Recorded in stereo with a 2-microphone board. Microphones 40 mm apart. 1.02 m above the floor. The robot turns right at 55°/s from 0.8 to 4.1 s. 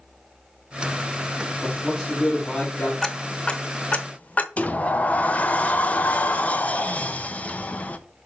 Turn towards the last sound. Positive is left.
turn(degrees=35)  # may be behind; listen again after turning